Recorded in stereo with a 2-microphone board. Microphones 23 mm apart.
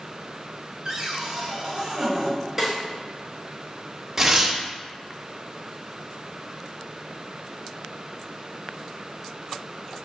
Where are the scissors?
No scissors in this recording.